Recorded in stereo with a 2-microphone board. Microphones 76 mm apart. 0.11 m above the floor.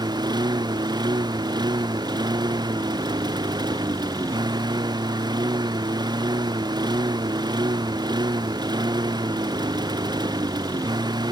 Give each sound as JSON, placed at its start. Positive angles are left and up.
{"t": 0.0, "sound": "a lawn mower", "side_deg": -80}